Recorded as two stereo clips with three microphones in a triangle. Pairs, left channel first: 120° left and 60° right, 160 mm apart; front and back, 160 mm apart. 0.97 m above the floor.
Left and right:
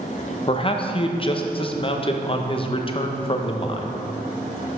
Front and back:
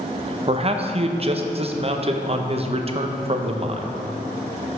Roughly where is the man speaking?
Behind left.